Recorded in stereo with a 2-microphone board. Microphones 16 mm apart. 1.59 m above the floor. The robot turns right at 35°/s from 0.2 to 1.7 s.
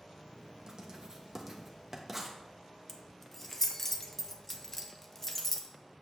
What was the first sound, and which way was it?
Writing, 45° right (ahead or behind).